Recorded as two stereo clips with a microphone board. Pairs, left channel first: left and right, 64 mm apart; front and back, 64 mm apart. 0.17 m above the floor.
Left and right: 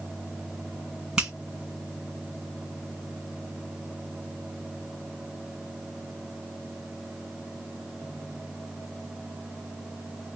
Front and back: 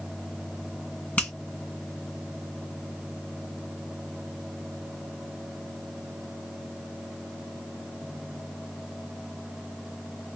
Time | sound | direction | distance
1.2 | a finger snap | 35° right | 1.6 m